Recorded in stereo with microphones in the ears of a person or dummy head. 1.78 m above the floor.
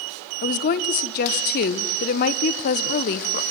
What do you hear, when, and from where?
0.4 s a woman speaking: 55° left (ahead or behind), 1.2 m